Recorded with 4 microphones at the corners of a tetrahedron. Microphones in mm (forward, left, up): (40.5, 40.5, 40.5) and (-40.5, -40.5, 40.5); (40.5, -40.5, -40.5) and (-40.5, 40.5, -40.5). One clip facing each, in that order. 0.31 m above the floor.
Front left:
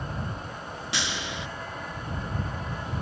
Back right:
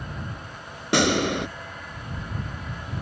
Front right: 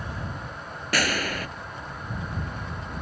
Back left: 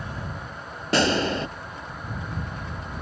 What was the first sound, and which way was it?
A gunshot, 160° right.